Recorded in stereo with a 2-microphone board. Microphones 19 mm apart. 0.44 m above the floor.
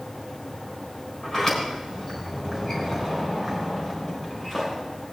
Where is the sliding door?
30° left (ahead or behind), 4 m.